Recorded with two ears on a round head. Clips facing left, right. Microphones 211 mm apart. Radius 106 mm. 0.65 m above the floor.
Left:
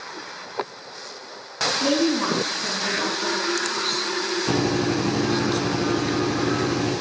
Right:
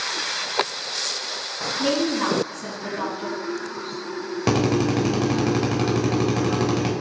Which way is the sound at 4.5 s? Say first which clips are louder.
Right 3 dB; 75° right (ahead or behind).